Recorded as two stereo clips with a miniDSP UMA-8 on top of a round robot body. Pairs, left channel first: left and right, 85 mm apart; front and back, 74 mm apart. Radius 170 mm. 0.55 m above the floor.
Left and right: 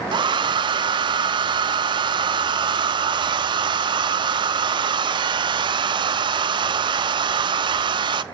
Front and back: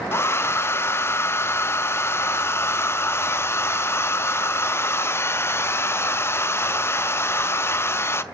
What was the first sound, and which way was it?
A hair dryer, 60° right.